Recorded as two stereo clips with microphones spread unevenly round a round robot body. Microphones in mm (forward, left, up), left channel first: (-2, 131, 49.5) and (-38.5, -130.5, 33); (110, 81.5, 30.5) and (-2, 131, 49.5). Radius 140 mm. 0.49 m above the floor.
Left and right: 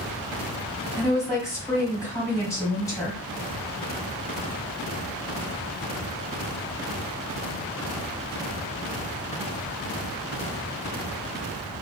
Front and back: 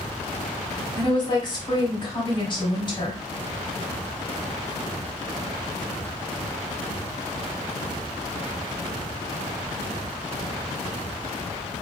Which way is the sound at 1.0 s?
5° left.